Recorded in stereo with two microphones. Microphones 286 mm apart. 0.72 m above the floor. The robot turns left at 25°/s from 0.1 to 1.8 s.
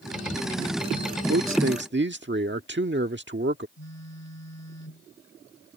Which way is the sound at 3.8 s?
70° left (ahead or behind).